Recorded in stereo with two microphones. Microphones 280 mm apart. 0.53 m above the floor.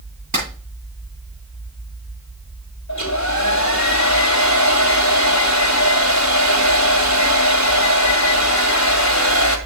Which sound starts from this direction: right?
A clap, at 0.3 s.